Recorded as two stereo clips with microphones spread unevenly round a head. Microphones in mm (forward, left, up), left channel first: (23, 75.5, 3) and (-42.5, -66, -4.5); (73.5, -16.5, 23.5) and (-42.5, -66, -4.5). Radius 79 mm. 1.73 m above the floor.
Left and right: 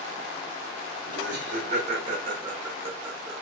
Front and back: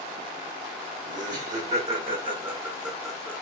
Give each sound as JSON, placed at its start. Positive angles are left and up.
{"t": 1.1, "sound": "laughter", "azimuth_deg": -145, "distance_m": 1.1}